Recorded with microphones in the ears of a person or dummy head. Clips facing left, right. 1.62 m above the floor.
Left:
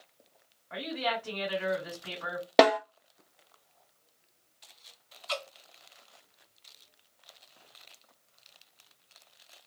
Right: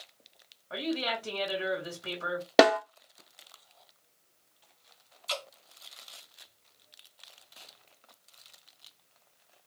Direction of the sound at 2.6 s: 10° right (ahead or behind).